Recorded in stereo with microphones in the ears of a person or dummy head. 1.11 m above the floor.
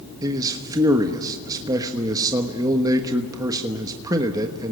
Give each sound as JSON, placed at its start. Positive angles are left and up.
{"t": 0.2, "sound": "a man speaking", "side_deg": -20, "distance_m": 1.3}